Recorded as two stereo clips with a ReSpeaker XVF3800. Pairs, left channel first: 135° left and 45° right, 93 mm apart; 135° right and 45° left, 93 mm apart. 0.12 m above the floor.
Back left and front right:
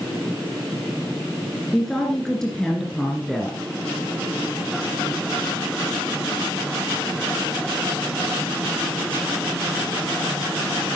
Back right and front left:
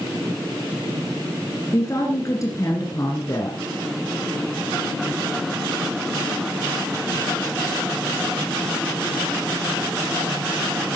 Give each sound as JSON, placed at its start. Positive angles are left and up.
{"t": 1.7, "sound": "a woman speaking", "azimuth_deg": -140, "distance_m": 1.9}